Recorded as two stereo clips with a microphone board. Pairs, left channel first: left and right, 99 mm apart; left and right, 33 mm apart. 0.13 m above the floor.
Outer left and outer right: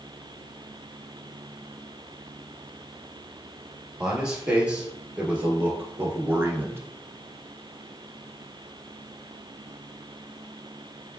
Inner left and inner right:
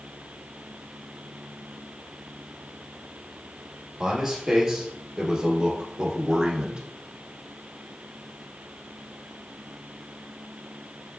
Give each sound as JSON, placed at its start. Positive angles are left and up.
{"t": 4.0, "sound": "a man speaking", "side_deg": -10, "distance_m": 2.5}